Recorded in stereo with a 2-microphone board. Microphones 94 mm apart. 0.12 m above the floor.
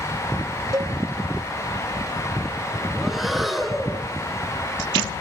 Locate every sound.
0.7 s a cowbell: 35° right (ahead or behind), 0.6 m
3.0 s breathing: centre (ahead or behind), 1.4 m